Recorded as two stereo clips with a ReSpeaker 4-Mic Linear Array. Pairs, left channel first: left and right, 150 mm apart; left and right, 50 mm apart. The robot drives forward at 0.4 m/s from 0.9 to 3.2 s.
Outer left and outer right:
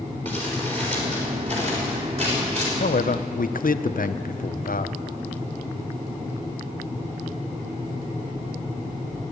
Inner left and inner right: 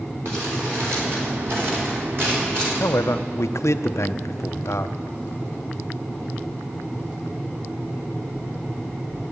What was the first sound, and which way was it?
Crumpling, 55° right (ahead or behind).